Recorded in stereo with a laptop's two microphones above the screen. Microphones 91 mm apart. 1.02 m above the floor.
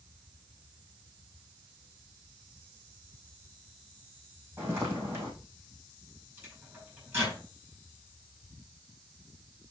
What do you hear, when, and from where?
4.6 s footsteps: 25° right (ahead or behind), 3 m
6.4 s a microwave: 15° right (ahead or behind), 5.5 m